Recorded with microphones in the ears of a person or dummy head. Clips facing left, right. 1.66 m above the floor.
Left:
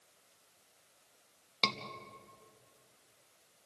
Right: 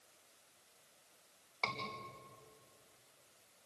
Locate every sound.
1.6 s a scream: 45° left (ahead or behind), 3 m